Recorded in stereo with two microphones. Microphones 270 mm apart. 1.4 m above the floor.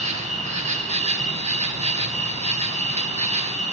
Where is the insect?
25° right (ahead or behind), 2.5 m.